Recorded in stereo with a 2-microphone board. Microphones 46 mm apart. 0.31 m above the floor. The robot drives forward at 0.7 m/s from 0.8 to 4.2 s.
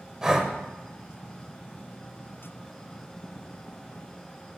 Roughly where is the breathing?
Centre.